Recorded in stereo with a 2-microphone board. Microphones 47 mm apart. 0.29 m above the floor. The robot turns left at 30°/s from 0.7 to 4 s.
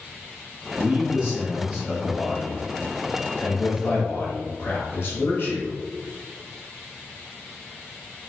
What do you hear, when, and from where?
0.8 s a man speaking: 160° right, 1.6 m; by 5.7 s 100° left, 1.6 m